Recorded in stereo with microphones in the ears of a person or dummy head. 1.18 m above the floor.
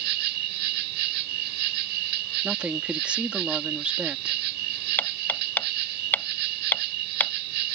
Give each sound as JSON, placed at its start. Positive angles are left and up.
{"t": 0.0, "sound": "an insect", "side_deg": -60}
{"t": 2.4, "sound": "a woman speaking", "side_deg": -5}
{"t": 5.0, "sound": "hammering", "side_deg": 10}